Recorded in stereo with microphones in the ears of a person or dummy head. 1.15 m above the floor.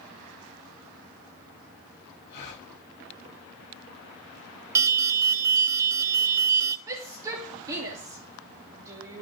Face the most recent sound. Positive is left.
turn(degrees=-20)  # may be behind; listen again after turning